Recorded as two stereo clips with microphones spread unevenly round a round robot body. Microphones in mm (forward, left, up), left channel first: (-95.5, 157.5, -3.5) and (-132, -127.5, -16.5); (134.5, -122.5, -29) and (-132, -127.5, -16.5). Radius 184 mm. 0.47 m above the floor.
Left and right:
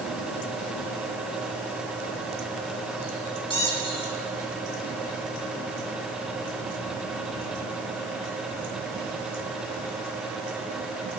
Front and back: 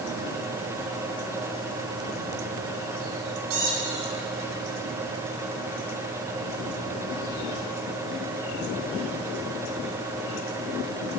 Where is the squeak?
155° left, 1.7 m.